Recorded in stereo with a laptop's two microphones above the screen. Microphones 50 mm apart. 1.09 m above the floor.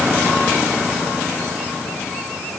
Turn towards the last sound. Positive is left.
No sound to turn to.